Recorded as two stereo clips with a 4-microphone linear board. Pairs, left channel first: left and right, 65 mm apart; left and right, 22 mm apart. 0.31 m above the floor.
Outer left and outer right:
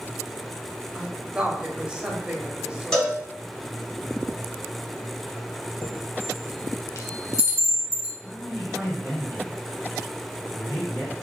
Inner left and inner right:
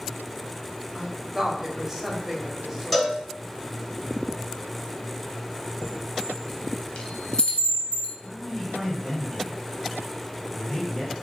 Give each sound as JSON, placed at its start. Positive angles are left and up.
{"t": 0.9, "sound": "a woman speaking", "side_deg": -15, "distance_m": 0.9}
{"t": 2.9, "sound": "a cowbell", "side_deg": 5, "distance_m": 2.0}
{"t": 5.8, "sound": "a chime", "side_deg": 55, "distance_m": 0.9}
{"t": 8.2, "sound": "a man speaking", "side_deg": 50, "distance_m": 2.0}